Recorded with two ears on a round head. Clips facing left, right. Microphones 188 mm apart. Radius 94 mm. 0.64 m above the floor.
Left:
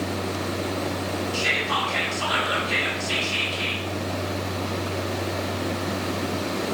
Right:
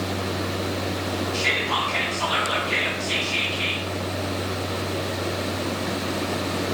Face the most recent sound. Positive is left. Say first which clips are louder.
# right 1 dB
turn(degrees=10)  # may be behind; listen again after turning